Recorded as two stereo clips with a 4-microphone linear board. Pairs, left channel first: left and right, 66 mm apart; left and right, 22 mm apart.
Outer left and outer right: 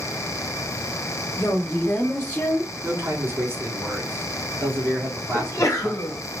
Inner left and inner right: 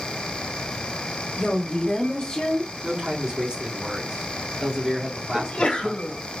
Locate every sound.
1.4 s a woman speaking: 45° left (ahead or behind), 1.5 m; by 2.7 s 15° left (ahead or behind), 1.1 m
2.8 s a man speaking: 40° right (ahead or behind), 1.7 m
5.3 s a sneeze: 60° left (ahead or behind), 1.2 m